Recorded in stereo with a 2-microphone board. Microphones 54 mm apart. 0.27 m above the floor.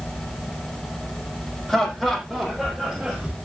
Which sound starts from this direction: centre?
Laughter, at 1.7 s.